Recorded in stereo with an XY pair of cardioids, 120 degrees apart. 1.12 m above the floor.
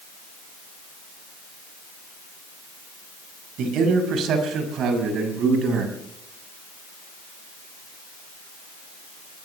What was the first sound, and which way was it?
A man speaking, 65° right.